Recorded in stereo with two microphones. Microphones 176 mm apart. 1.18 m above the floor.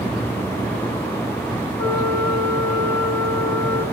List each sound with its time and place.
1.8 s a flute: 15° left (ahead or behind), 8.5 m